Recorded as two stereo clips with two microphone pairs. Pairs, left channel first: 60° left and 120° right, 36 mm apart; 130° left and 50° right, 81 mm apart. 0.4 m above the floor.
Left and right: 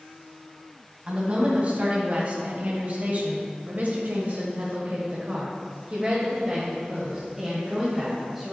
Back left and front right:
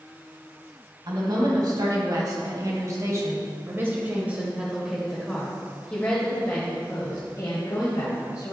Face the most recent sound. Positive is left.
turn(degrees=170)